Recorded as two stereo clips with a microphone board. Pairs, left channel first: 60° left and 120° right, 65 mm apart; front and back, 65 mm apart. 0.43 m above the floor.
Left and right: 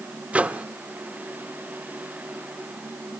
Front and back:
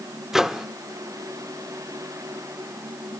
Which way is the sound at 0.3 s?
110° right.